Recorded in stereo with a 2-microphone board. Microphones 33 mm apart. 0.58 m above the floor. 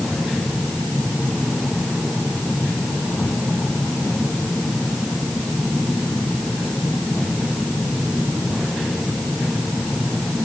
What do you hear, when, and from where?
Only background noise.